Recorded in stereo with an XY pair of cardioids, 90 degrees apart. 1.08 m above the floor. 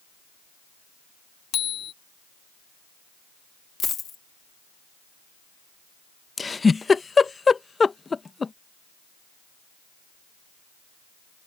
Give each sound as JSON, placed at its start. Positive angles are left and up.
{"t": 1.5, "sound": "a bicycle bell", "azimuth_deg": 70}
{"t": 3.8, "sound": "a dropped coin", "azimuth_deg": 55}
{"t": 6.4, "sound": "a giggle", "azimuth_deg": 30}